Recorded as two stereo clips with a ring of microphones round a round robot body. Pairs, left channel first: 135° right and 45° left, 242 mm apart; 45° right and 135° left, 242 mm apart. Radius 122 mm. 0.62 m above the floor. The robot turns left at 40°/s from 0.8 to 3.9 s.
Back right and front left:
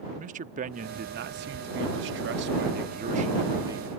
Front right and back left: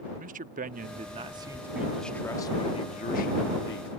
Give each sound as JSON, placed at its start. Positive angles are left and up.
{"t": 0.2, "sound": "a man speaking", "azimuth_deg": 90}